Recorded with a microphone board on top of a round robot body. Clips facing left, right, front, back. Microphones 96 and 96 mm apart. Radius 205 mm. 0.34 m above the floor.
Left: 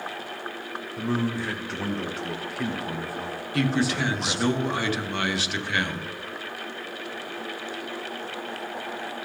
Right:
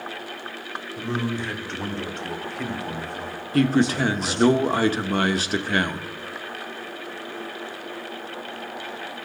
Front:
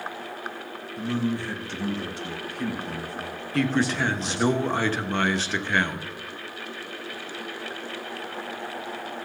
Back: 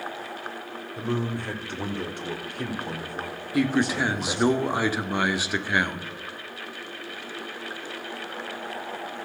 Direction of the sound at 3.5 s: 105° right.